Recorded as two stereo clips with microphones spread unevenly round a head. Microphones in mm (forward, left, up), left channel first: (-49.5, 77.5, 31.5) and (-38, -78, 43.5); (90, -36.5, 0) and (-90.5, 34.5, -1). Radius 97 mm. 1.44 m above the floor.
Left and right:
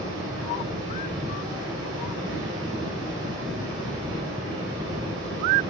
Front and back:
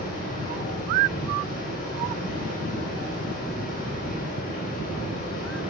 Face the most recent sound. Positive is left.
turn(degrees=-75)